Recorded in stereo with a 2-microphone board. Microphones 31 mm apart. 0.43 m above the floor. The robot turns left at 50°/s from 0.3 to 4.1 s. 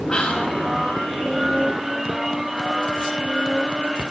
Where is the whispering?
30° left (ahead or behind), 0.8 m; by 0.6 s 25° left (ahead or behind), 0.8 m.